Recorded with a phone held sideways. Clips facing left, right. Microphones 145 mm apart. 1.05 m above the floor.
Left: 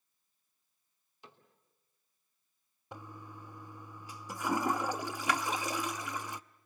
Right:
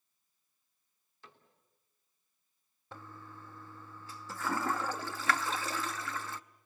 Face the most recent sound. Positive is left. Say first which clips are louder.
# left 2 dB
turn(degrees=15)  # may be behind; listen again after turning